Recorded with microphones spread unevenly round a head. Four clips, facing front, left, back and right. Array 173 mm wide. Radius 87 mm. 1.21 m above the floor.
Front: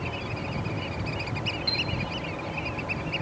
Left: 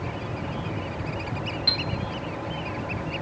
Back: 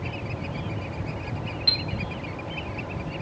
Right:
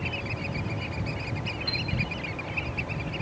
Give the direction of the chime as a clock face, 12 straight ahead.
8 o'clock.